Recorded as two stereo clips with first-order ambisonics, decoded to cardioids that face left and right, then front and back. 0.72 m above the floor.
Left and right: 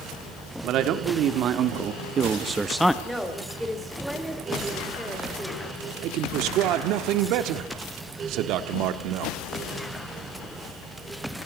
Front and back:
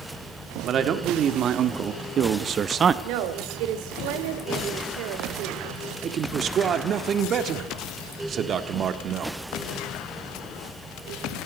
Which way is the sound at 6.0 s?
120° right.